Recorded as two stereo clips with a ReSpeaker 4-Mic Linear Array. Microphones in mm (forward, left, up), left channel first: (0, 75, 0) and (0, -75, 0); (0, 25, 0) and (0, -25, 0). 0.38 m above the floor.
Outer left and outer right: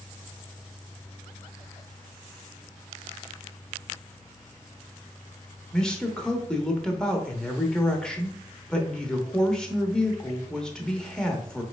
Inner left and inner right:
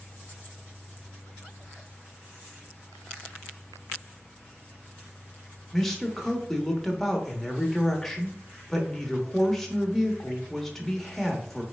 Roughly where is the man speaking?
Centre.